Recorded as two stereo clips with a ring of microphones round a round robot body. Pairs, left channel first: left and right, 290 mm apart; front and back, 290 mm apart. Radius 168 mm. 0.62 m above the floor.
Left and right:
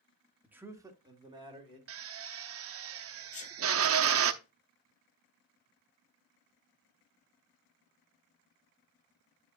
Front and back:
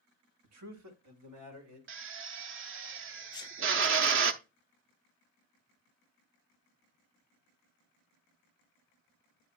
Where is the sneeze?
60° left, 0.6 m.